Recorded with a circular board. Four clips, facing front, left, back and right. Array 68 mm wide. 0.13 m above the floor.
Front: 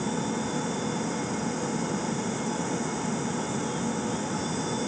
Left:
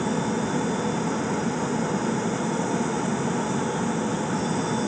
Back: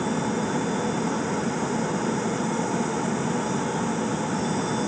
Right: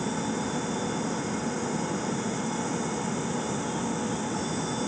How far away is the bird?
I don't hear a bird.